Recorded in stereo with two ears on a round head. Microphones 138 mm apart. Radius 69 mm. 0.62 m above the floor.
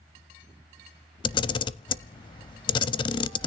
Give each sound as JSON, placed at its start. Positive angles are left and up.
{"t": 1.2, "sound": "a camera shutter", "side_deg": 30, "distance_m": 0.5}